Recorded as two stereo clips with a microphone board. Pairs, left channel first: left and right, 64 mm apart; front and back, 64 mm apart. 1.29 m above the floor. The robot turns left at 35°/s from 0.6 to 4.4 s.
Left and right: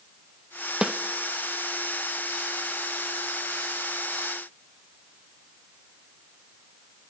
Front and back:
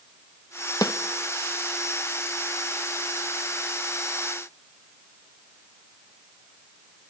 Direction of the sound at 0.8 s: 10° right.